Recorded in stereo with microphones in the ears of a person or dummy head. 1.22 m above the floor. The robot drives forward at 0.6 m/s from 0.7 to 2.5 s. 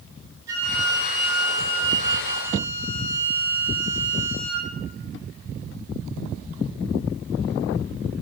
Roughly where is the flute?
Right.